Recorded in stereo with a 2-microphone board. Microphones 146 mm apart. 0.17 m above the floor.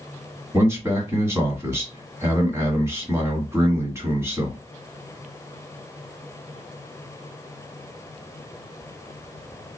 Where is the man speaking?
20° right (ahead or behind), 1.6 m.